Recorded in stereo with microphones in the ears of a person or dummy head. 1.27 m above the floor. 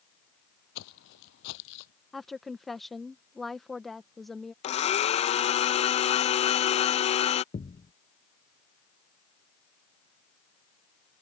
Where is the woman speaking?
5° left (ahead or behind).